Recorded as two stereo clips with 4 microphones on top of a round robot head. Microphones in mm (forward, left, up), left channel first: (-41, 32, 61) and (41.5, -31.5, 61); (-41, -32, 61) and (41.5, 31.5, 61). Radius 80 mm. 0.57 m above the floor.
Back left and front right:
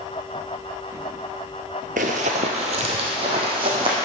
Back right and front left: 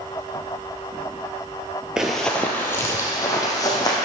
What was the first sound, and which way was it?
Running footsteps, 45° right.